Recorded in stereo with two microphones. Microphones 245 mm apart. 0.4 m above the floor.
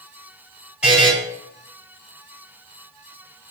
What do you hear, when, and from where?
0.8 s a buzzer: 5° right (ahead or behind), 2.5 m